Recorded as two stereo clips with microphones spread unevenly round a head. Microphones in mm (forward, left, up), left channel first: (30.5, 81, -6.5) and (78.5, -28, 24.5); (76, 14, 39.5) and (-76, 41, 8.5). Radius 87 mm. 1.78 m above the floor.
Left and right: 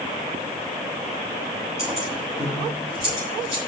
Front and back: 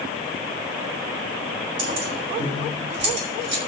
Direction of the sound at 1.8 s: 170° right.